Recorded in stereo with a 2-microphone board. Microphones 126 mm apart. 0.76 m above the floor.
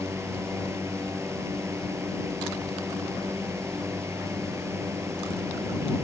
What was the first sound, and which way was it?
A drone, 20° right (ahead or behind).